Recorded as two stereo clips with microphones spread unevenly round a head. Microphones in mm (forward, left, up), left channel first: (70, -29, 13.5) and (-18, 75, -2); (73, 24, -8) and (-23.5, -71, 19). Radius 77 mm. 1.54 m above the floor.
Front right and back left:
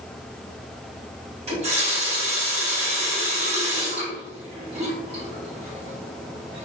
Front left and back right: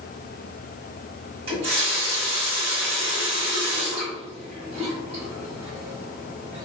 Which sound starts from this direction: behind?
A running tap, at 1.5 s.